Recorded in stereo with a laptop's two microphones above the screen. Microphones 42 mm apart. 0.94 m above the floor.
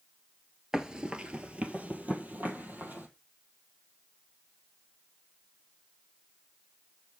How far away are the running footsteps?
About 1.1 m.